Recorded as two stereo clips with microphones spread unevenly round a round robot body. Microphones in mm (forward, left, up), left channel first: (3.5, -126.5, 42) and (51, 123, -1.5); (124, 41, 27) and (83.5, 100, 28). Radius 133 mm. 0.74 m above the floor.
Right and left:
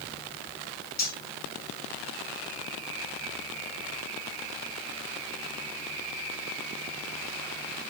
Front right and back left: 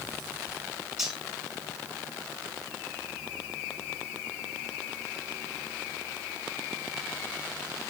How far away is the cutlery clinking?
About 2.5 m.